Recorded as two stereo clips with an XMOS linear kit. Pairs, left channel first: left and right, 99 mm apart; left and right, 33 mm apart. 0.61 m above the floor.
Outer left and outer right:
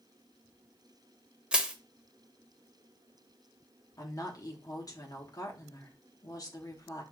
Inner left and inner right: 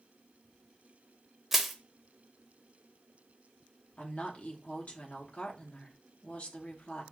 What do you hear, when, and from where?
1.5 s crushing: 10° right (ahead or behind), 0.6 m
4.0 s a woman speaking: 40° left (ahead or behind), 0.9 m